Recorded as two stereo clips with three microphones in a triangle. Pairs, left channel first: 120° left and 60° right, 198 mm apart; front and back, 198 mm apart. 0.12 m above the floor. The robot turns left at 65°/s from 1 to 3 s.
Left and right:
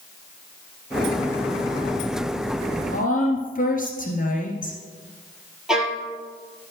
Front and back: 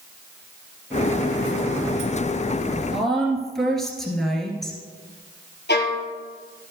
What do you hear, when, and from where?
2.9 s a woman speaking: 95° left, 1.9 m; by 4.8 s 90° left, 1.9 m
5.7 s a violin: 25° left, 2 m